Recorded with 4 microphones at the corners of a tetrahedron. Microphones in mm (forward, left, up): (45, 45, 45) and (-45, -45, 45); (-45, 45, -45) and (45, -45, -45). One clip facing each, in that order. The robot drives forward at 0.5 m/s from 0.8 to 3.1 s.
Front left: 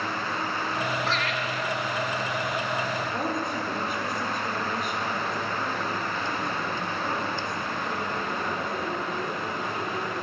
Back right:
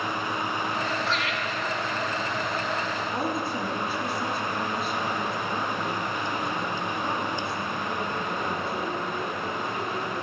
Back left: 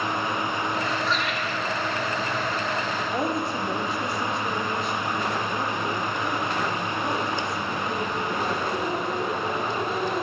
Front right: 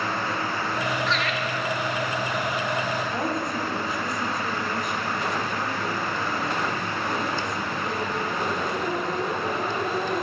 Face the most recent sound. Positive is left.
turn(degrees=180)